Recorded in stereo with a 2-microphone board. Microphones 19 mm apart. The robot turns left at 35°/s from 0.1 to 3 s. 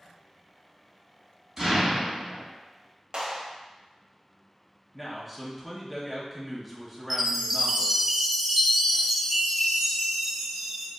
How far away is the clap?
About 0.7 m.